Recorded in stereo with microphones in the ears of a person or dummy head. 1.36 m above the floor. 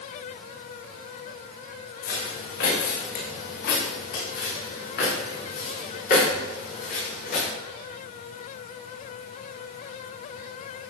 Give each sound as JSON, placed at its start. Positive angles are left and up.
{"t": 2.0, "sound": "footsteps", "side_deg": 55, "distance_m": 5.5}